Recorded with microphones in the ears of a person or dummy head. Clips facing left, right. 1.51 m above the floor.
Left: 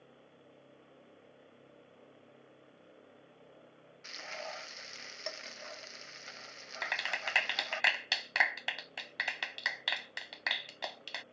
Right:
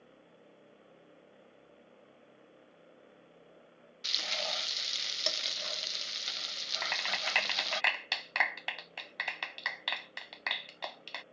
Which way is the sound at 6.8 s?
Centre (ahead or behind).